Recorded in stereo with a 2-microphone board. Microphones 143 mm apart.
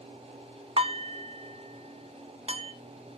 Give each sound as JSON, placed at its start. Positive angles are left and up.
{"t": 0.8, "sound": "dishes clattering", "side_deg": -45, "distance_m": 2.0}